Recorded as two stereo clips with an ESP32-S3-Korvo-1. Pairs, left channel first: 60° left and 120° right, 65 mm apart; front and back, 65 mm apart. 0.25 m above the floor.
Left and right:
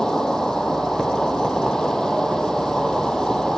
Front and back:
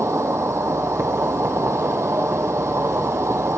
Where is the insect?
140° left, 0.9 m.